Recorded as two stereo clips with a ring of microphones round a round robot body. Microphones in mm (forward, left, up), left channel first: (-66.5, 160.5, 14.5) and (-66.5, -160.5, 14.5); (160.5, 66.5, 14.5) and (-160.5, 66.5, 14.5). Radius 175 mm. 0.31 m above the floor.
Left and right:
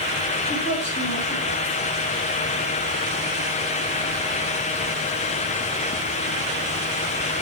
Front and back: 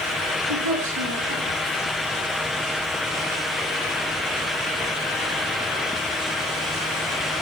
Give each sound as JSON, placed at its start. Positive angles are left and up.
{"t": 0.5, "sound": "a woman speaking", "azimuth_deg": 145, "distance_m": 4.5}